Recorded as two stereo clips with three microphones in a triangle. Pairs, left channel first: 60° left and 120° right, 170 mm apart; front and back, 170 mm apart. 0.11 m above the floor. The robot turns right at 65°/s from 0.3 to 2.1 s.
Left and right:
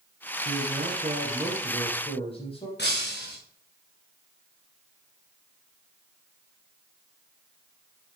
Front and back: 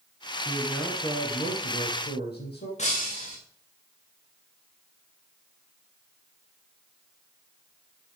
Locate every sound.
0.5 s a man speaking: 105° right, 5 m; by 2.7 s 5° left, 5 m
2.8 s breaking glass: 50° left, 3.5 m